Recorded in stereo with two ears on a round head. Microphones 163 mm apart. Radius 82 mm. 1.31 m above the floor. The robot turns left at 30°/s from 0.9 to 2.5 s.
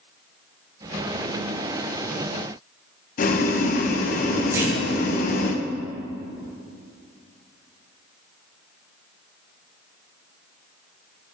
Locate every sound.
3.2 s boiling: 45° left (ahead or behind), 0.8 m
4.5 s a clunk: 15° right (ahead or behind), 1.8 m